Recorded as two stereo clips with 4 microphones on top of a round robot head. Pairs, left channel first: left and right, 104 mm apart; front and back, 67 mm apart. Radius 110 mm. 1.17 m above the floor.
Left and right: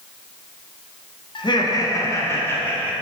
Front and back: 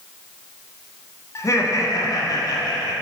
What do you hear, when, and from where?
1.4 s laughter: 50° left, 1.1 m; by 2.9 s 15° left, 1.7 m